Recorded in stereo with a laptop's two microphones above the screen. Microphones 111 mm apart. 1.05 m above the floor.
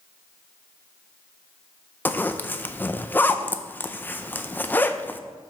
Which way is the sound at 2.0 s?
15° left (ahead or behind).